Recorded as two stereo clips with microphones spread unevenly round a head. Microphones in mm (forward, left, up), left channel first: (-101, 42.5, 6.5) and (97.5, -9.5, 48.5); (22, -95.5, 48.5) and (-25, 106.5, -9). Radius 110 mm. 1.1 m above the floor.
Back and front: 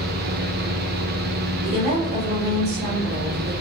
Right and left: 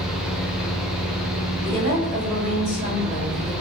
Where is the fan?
30° left, 0.7 m.